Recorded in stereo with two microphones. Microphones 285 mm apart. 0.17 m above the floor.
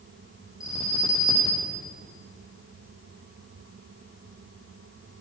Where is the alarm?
10° left (ahead or behind), 9 m.